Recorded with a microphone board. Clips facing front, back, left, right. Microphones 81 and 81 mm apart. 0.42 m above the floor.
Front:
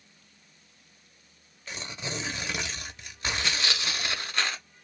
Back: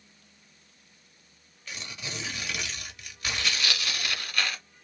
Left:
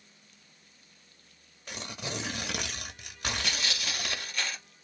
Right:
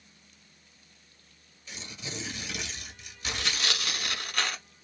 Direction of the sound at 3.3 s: 65° right.